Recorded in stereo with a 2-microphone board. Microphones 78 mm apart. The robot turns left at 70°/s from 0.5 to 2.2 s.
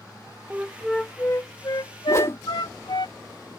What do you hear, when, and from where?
0.5 s a flute: 155° right; by 3.1 s 85° left
2.1 s a whoosh: 40° left (ahead or behind); by 2.4 s 35° left (ahead or behind)